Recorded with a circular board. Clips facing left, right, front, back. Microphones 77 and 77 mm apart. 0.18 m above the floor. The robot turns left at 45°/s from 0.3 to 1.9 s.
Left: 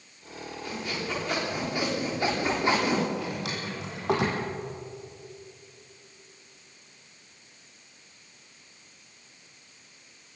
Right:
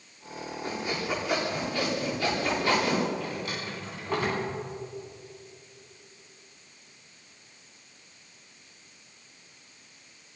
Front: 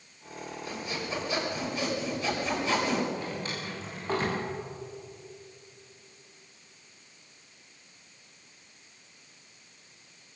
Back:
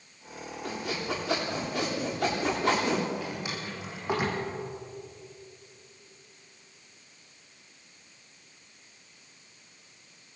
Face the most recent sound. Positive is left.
turn(degrees=100)